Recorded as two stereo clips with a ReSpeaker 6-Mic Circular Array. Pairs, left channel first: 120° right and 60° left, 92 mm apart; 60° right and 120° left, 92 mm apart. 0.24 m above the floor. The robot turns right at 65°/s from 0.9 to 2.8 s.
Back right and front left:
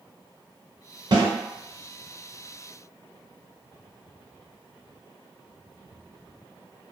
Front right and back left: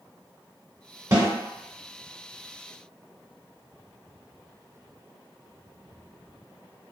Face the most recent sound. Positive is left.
turn(degrees=180)